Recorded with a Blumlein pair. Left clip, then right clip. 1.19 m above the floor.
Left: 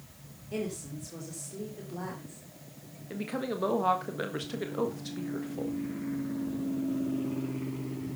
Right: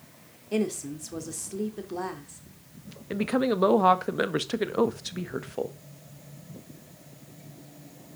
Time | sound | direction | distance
0.5 | a woman speaking | 25° right | 3 m
3.1 | a woman speaking | 25° right | 1.4 m